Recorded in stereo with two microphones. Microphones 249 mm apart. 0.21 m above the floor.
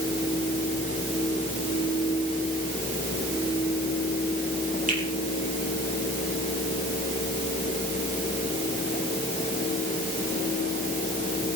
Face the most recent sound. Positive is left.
turn(degrees=-30)  # may be behind; listen again after turning